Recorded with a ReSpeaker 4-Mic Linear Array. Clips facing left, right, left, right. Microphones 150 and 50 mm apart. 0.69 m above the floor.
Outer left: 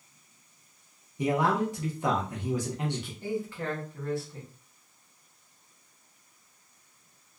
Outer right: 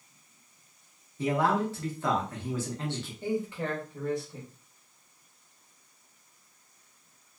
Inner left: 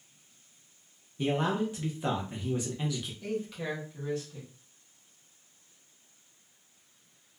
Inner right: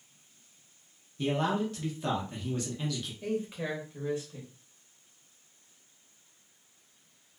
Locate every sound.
1.2 s a man speaking: 15° left (ahead or behind), 0.7 m
3.2 s a man speaking: 20° right (ahead or behind), 0.9 m